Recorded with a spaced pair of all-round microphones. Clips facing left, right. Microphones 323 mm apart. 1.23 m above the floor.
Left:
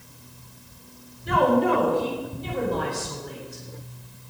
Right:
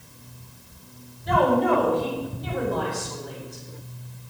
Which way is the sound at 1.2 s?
35° left (ahead or behind).